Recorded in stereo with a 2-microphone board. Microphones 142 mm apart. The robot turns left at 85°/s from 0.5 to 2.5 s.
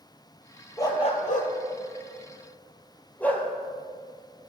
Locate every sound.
0.8 s a dog barking: 20° left (ahead or behind), 1.6 m; by 3.5 s 10° left (ahead or behind), 1.6 m